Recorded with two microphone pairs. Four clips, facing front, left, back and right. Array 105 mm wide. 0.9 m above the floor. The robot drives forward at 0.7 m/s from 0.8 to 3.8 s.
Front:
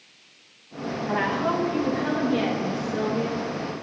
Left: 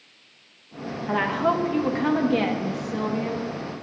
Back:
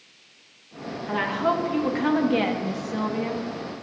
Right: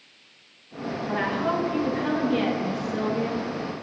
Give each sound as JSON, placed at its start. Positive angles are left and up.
{"t": 1.1, "sound": "a woman speaking", "azimuth_deg": 95, "distance_m": 1.1}